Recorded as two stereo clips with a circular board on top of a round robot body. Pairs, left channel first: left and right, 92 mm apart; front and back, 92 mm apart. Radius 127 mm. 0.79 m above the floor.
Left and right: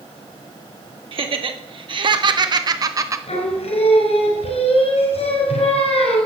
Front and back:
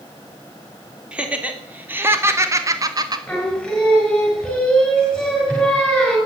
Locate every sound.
1.1 s laughter: 100° right, 2.5 m; by 3.2 s 145° right, 1.8 m
3.3 s singing: 85° left, 5 m